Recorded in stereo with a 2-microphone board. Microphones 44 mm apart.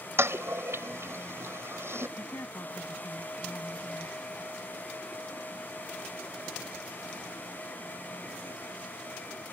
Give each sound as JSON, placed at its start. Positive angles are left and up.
{"t": 0.2, "sound": "a toilet flushing", "side_deg": -75}
{"t": 2.2, "sound": "a woman speaking", "side_deg": 80}